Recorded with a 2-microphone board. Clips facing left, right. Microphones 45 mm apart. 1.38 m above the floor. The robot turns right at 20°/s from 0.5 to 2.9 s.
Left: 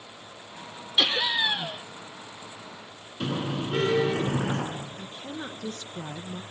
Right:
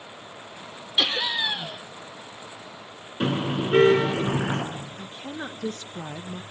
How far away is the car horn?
About 10 m.